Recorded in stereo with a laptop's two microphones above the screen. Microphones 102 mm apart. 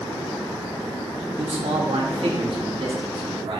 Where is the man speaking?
70° right (ahead or behind), 1.6 m; by 3.6 s 55° right (ahead or behind), 2.5 m.